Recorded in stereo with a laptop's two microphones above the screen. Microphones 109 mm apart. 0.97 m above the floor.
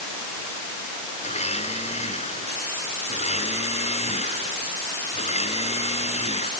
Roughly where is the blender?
Left.